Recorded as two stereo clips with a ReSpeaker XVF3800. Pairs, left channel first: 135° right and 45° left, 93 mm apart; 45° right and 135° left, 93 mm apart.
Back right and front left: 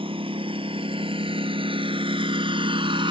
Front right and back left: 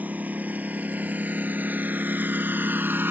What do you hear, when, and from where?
0.0 s a lawn mower: 60° left; by 3.1 s 65° left